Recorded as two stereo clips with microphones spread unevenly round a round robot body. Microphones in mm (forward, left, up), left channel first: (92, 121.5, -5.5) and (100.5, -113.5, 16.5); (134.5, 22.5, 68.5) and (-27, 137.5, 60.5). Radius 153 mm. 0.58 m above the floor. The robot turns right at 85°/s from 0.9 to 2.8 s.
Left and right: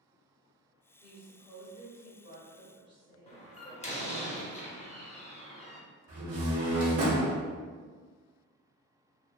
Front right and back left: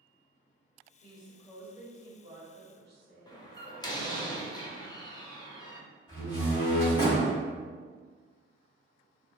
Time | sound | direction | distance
1.0 | a woman speaking | 5° right | 1.2 m
3.3 | a door slam | 35° left | 0.7 m
6.1 | a door slam | 100° right | 1.1 m